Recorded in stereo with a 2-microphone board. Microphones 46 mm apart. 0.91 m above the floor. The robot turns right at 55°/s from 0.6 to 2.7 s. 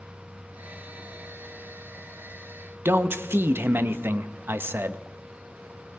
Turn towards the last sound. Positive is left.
turn(degrees=-55)  # may be behind; listen again after turning